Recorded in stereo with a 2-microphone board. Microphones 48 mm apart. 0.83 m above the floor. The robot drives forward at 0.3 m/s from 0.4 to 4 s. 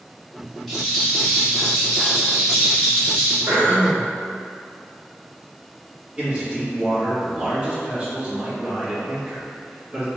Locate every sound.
0.7 s a rattle: 5° left (ahead or behind), 1.4 m; by 3.4 s centre (ahead or behind), 2 m
3.5 s throat clearing: 65° right (ahead or behind), 1.0 m; by 4.1 s 60° right (ahead or behind), 1.1 m
6.2 s a man speaking: 20° right (ahead or behind), 1.2 m